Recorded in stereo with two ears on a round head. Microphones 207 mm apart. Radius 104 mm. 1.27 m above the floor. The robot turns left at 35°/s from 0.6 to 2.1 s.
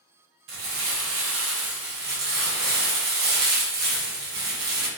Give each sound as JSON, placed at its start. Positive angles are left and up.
{"t": 0.5, "sound": "crumpling", "azimuth_deg": -75, "distance_m": 1.0}